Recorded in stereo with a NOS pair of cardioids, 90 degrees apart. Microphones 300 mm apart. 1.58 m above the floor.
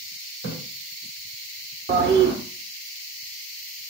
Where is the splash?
65° right, 2 m.